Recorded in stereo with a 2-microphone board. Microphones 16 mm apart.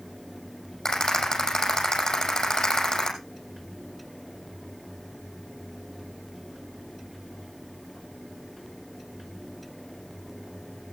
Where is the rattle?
55° left (ahead or behind), 6.5 m.